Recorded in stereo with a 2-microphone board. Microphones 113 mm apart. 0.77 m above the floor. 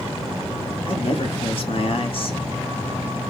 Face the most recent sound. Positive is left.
turn(degrees=50)  # may be behind; listen again after turning